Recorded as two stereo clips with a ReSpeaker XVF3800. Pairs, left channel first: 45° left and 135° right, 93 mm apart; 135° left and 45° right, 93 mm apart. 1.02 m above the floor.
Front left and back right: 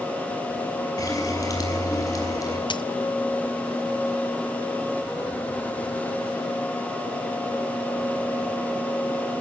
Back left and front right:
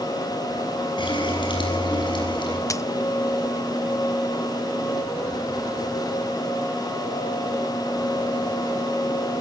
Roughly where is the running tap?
Left.